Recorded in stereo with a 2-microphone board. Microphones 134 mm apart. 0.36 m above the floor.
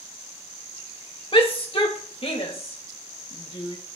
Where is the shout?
45° left (ahead or behind), 1.4 m; by 3.8 s 50° left (ahead or behind), 2.5 m.